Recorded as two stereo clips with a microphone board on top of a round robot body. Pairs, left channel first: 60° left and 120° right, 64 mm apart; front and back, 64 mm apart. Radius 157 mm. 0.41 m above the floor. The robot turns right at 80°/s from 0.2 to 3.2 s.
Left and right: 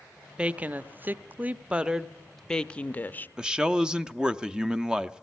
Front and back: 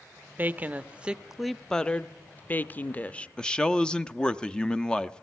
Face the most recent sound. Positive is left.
turn(degrees=-60)